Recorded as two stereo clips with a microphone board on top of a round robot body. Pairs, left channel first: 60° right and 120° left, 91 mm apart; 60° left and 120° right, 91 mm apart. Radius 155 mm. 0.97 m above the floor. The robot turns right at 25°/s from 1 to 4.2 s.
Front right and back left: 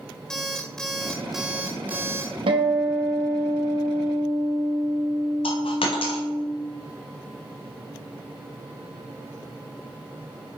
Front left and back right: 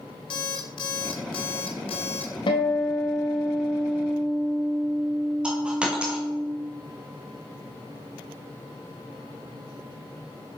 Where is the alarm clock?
25° left, 0.7 m; by 2.3 s 60° left, 0.7 m.